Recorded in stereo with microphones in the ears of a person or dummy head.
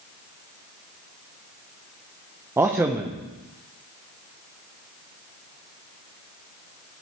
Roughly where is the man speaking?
Centre.